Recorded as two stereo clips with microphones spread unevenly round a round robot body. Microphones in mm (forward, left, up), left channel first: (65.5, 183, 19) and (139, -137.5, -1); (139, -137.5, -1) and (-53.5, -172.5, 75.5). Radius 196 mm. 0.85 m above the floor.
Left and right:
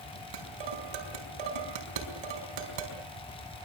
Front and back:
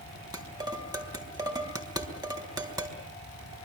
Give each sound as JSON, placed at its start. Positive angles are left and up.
{"t": 0.3, "sound": "dishes clattering", "azimuth_deg": -100, "distance_m": 4.0}